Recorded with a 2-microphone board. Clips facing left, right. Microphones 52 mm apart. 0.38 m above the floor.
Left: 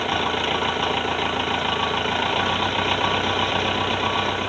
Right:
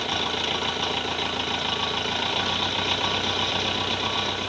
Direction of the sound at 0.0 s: 25° left (ahead or behind).